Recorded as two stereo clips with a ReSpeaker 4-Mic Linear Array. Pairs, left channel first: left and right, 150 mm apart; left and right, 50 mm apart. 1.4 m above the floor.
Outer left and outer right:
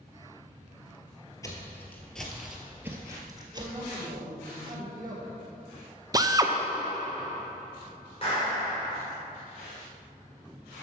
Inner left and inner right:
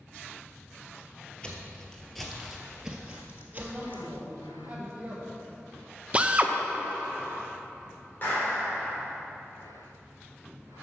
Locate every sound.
1.4 s footsteps: 20° left (ahead or behind), 1.4 m; by 4.0 s 35° right (ahead or behind), 1.7 m
3.5 s a man speaking: 30° right (ahead or behind), 3 m
6.1 s a drill: 25° right (ahead or behind), 0.6 m
8.2 s a clap: 40° left (ahead or behind), 3 m